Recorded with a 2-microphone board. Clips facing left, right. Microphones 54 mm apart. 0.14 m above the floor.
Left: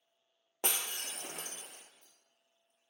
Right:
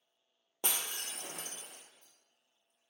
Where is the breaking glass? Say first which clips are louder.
Left 1 dB; 60° left (ahead or behind), 0.6 m.